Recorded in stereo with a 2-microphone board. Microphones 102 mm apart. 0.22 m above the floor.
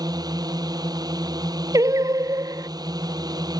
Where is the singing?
35° right (ahead or behind).